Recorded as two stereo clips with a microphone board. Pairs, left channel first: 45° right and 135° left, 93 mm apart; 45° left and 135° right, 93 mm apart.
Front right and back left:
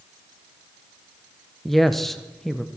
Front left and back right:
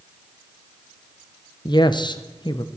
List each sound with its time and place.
1.6 s a woman speaking: 40° left, 0.9 m